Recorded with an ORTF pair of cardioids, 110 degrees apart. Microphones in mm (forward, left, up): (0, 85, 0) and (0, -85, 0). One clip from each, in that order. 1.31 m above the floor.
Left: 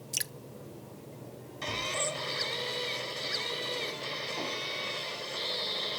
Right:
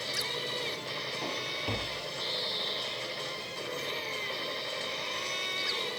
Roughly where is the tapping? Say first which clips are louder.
Left 2 dB; ahead right.